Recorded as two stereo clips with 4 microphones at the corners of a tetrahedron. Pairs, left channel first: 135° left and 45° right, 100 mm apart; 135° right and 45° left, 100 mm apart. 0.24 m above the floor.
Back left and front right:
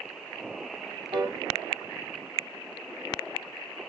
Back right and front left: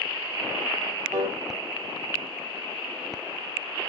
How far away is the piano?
About 2.5 m.